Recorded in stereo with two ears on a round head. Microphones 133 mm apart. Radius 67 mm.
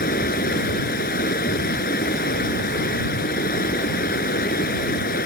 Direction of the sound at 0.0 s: 65° left (ahead or behind).